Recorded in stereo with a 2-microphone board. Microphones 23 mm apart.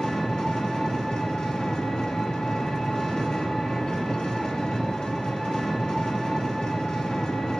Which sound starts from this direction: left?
An engine running, at 0.0 s.